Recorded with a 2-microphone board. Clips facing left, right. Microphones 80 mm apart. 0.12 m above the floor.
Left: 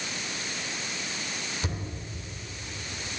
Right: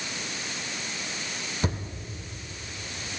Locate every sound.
1.6 s a thud: 40° right (ahead or behind), 1.8 m